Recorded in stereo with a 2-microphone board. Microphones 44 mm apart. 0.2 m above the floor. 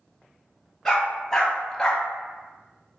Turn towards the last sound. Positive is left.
turn(degrees=15)  # may be behind; listen again after turning